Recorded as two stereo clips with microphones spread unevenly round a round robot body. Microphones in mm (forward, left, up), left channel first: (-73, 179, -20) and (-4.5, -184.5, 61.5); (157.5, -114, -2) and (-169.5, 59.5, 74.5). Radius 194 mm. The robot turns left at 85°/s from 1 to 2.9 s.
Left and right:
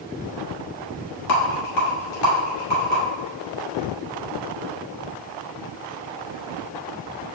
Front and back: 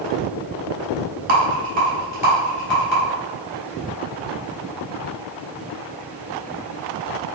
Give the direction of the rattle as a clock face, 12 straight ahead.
8 o'clock.